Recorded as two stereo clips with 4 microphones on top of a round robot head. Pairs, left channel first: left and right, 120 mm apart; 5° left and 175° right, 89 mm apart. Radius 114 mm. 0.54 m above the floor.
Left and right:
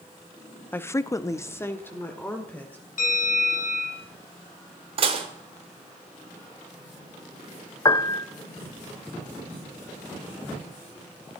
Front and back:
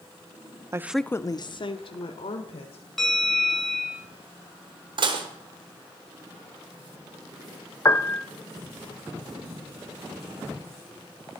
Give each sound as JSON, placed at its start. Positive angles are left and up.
{"t": 0.7, "sound": "a woman speaking", "azimuth_deg": 155, "distance_m": 0.7}
{"t": 3.0, "sound": "a bell", "azimuth_deg": 95, "distance_m": 4.0}
{"t": 5.0, "sound": "dishes clattering", "azimuth_deg": -135, "distance_m": 1.2}
{"t": 7.8, "sound": "a piano", "azimuth_deg": 45, "distance_m": 0.9}